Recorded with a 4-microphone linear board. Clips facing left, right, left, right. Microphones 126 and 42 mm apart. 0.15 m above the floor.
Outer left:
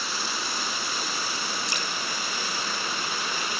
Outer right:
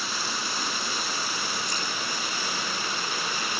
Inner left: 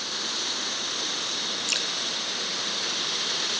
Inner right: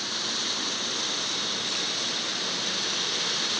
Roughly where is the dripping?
Left.